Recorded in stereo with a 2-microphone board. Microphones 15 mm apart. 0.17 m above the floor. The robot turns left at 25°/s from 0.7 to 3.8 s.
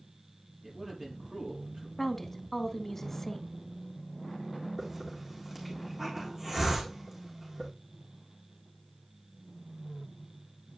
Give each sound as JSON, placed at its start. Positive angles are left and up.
{"t": 0.6, "sound": "a man speaking", "side_deg": -30, "distance_m": 4.5}
{"t": 2.0, "sound": "a woman speaking", "side_deg": 15, "distance_m": 1.0}
{"t": 4.8, "sound": "a hiss", "side_deg": -30, "distance_m": 3.5}